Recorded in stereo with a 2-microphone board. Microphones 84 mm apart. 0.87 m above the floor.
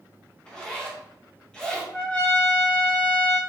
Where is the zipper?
10° left (ahead or behind), 1.0 m.